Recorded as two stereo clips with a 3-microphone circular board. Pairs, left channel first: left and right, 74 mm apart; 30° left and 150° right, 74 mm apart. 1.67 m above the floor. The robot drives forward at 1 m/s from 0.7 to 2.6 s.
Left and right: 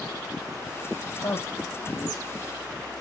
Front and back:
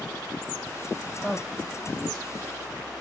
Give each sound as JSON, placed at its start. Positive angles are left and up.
{"t": 1.2, "sound": "a man speaking", "azimuth_deg": 105, "distance_m": 3.0}